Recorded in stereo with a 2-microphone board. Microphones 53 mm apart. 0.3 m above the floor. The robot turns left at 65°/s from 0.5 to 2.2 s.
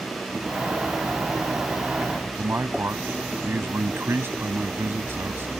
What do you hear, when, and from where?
2.4 s a man speaking: 50° right (ahead or behind)